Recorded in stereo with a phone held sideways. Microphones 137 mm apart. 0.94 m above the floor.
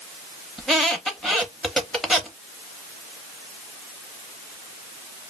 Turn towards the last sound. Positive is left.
turn(degrees=0)  # may be behind; listen again after turning